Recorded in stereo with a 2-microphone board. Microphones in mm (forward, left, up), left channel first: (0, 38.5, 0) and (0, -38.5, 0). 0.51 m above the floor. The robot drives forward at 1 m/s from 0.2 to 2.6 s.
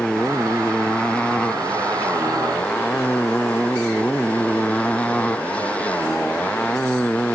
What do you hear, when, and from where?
0.0 s a motorcycle: 15° left (ahead or behind)